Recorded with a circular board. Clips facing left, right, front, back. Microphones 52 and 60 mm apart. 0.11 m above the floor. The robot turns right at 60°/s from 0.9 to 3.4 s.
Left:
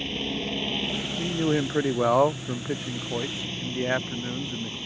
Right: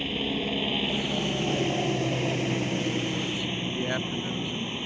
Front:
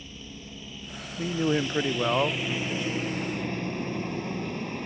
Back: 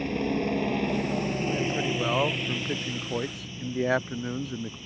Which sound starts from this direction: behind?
A helicopter, at 0.0 s.